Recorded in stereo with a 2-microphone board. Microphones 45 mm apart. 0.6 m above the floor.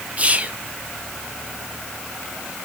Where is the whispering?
30° right (ahead or behind), 0.7 m.